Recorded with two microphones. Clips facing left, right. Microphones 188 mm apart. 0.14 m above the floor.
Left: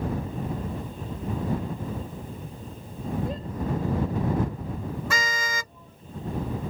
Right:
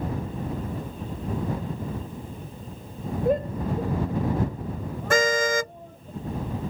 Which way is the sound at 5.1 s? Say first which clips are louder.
Right 10 dB; 50° right (ahead or behind).